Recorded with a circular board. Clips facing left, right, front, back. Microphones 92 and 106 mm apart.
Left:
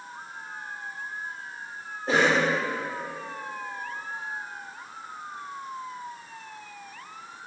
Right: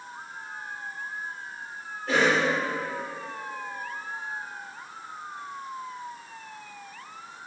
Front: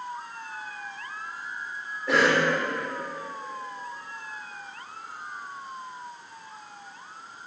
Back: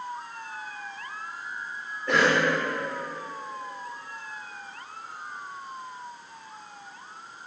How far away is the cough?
About 0.9 m.